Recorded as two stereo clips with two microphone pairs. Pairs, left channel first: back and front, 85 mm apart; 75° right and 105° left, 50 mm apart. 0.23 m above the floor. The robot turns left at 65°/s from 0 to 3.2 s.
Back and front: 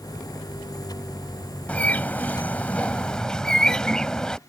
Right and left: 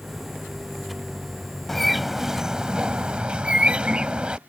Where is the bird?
145° right; by 4.4 s 115° left.